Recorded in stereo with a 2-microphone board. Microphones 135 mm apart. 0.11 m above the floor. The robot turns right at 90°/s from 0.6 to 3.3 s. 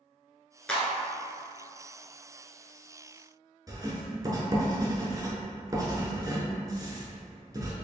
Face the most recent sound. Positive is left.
turn(degrees=-25)  # may be behind; listen again after turning